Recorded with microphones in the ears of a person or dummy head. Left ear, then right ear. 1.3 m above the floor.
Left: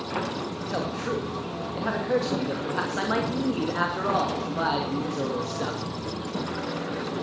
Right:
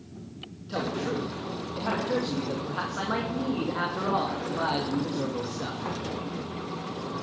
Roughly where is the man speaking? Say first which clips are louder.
Even; centre.